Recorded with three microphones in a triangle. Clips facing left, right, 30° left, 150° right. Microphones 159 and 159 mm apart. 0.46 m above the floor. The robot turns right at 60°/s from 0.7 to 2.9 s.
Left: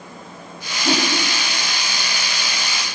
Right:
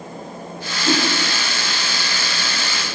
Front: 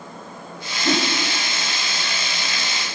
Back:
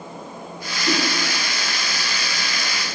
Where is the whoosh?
35° left, 1.8 m; by 1.1 s 45° left, 1.8 m.